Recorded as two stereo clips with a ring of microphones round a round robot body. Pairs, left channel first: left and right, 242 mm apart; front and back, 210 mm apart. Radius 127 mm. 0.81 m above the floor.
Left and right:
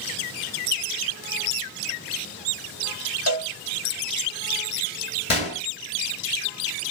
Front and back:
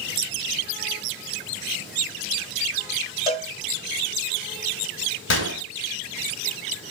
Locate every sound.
3.3 s a cowbell: 110° left, 2 m
5.3 s a gunshot: 25° left, 1.6 m